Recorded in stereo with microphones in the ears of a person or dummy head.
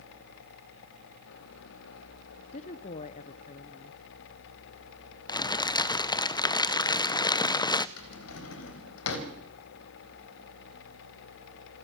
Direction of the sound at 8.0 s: 75° left (ahead or behind).